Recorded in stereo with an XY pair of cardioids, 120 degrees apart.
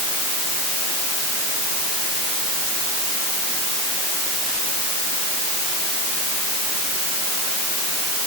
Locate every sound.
Only background noise.